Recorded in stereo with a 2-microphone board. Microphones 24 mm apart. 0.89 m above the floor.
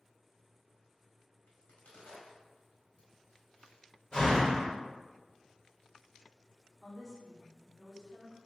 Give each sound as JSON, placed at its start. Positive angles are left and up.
{"t": 1.5, "sound": "a crack", "side_deg": 70, "distance_m": 0.9}
{"t": 4.1, "sound": "a door slam", "side_deg": 40, "distance_m": 1.0}
{"t": 6.8, "sound": "a woman speaking", "side_deg": 15, "distance_m": 1.0}